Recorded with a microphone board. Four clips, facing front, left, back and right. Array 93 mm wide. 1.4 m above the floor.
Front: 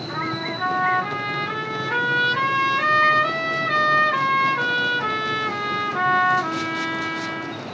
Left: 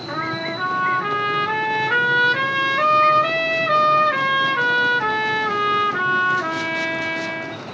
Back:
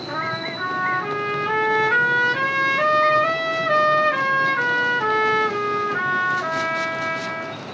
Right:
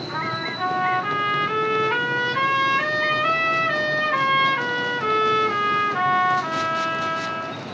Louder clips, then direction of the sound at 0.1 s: Left 3 dB, back 1 dB; 105° left.